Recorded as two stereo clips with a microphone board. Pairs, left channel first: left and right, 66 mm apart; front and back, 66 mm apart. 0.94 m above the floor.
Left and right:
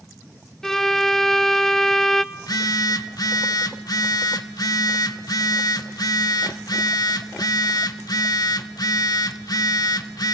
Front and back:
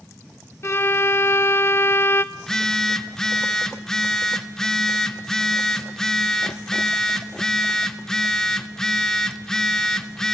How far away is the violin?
About 0.8 m.